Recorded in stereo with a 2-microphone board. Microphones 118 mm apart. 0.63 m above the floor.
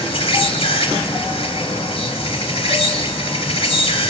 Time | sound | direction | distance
0.0 | an insect | 60° left (ahead or behind) | 2 m